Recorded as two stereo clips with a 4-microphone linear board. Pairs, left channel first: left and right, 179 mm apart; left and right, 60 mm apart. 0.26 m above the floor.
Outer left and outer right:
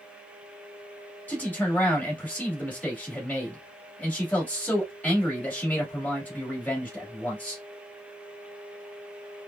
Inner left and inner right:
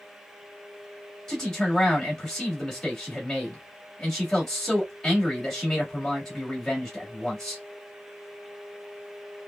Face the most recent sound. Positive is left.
turn(degrees=10)  # may be behind; listen again after turning